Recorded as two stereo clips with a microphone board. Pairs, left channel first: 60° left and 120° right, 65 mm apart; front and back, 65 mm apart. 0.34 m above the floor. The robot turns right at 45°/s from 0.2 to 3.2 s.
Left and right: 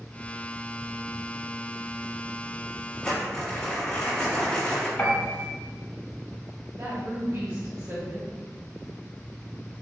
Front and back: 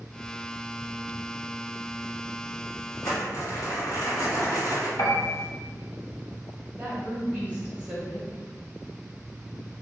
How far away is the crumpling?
About 1.7 m.